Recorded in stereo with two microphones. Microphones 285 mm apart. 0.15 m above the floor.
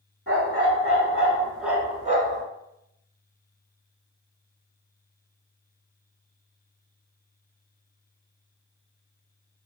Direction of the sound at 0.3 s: 50° left (ahead or behind).